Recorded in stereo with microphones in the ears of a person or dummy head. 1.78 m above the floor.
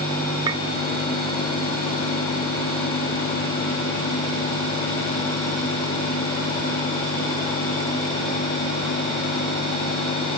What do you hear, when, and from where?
0.5 s a clink: 20° right (ahead or behind)